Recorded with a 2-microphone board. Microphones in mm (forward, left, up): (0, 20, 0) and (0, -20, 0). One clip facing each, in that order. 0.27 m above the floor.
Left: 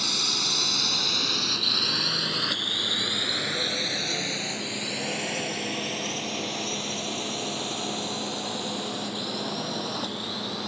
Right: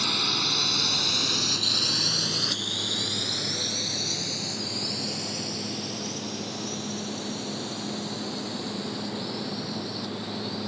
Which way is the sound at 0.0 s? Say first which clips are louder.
Right 2 dB; 20° right (ahead or behind).